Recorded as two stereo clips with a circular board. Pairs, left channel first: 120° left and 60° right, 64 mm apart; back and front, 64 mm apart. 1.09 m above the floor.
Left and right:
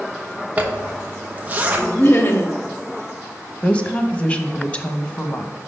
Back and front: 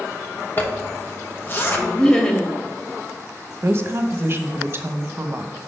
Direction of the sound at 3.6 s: 50° left.